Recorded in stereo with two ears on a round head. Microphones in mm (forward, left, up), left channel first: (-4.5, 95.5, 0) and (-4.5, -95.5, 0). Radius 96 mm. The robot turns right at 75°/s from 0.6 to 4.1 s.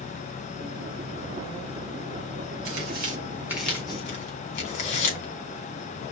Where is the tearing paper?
70° right (ahead or behind), 3.5 m; by 6.1 s 35° left (ahead or behind), 3.5 m.